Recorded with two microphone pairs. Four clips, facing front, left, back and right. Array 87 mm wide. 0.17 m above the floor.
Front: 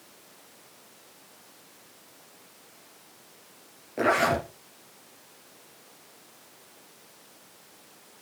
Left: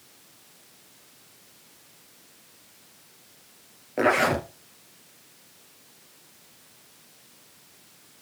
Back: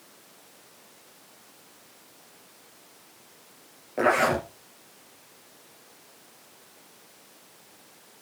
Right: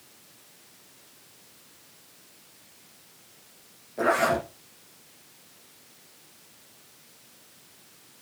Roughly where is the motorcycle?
No motorcycle in this recording.